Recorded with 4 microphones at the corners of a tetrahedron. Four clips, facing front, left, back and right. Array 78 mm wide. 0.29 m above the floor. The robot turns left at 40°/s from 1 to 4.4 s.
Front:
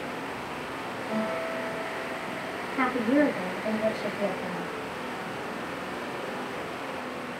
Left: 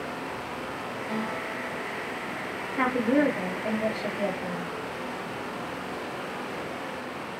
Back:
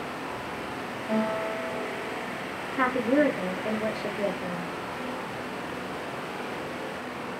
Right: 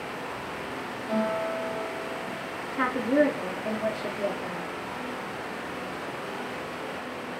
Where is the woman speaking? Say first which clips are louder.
Even, back 1 dB; 85° left, 2 m; by 4.7 s 20° left, 2 m.